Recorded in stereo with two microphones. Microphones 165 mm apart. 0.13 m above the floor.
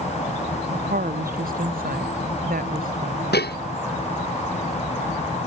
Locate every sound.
0.7 s a woman speaking: 60° right (ahead or behind)
3.3 s dishes clattering: 85° left